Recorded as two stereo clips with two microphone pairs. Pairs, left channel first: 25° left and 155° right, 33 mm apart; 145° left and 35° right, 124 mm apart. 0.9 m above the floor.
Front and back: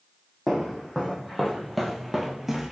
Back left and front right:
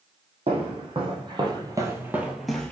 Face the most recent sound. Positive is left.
turn(degrees=175)